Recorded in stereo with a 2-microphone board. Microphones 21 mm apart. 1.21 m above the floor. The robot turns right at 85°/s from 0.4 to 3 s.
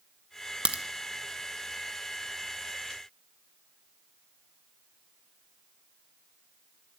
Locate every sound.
0.7 s a crack: 60° right (ahead or behind), 1.1 m; by 0.8 s 75° right (ahead or behind), 1.1 m